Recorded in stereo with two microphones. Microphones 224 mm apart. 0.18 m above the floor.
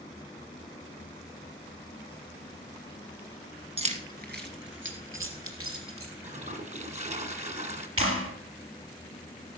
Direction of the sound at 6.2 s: 30° right (ahead or behind).